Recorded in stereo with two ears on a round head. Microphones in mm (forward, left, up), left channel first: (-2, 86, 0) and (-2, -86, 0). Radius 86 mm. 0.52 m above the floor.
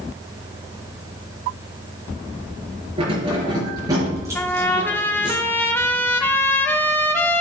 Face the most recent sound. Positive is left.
turn(degrees=10)  # may be behind; listen again after turning